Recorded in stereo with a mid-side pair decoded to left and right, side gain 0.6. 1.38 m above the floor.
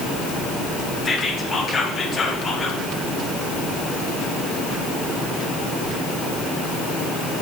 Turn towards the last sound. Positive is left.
turn(degrees=30)